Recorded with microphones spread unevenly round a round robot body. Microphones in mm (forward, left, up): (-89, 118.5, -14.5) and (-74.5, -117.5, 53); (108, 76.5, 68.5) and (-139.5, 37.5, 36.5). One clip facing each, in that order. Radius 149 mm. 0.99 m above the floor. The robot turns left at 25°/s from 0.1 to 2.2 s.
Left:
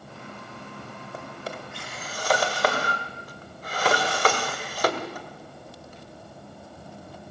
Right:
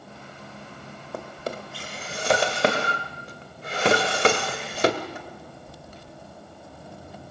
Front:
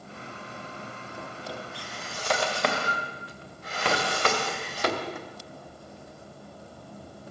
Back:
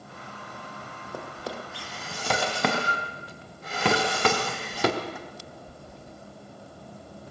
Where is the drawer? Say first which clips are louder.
Right 5 dB, back 4 dB; 120° right, 2 m; by 6.2 s 150° right, 2 m.